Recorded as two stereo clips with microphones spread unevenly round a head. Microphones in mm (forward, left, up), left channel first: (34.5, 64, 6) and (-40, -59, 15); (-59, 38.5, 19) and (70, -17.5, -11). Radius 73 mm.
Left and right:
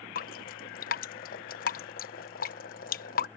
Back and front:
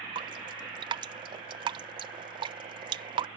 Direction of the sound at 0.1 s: 30° left.